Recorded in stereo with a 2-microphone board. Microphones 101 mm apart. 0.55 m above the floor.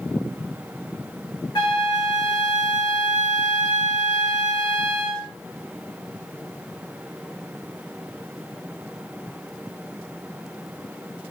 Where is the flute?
45° left (ahead or behind), 1.2 m.